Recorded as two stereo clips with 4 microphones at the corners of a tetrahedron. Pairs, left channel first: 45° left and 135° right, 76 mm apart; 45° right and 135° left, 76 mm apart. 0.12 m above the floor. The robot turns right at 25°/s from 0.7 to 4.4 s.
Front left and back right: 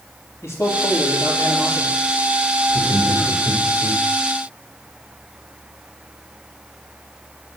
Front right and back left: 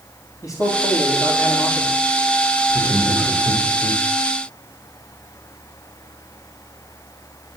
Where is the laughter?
80° left, 3.5 m; by 4.0 s 110° left, 3.5 m.